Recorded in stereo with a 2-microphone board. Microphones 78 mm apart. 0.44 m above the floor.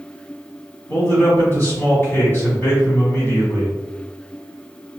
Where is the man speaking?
35° left (ahead or behind), 1.5 m.